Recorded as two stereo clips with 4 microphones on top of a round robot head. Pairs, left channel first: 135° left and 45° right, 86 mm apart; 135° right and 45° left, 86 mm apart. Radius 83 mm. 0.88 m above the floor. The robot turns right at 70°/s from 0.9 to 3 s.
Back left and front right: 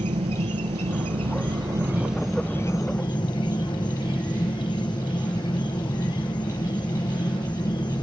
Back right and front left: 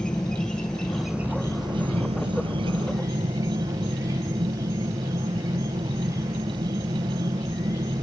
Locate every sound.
0.0 s an insect: 50° right, 1.6 m; by 8.0 s 95° left, 1.6 m